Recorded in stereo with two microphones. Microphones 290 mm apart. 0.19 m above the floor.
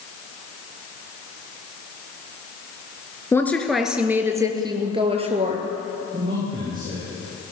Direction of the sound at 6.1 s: 25° right (ahead or behind).